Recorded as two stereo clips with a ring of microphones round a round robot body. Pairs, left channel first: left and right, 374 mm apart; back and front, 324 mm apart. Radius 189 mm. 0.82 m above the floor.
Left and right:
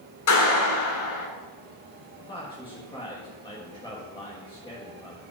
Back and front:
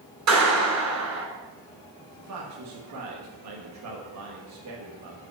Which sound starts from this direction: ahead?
A man speaking, at 2.2 s.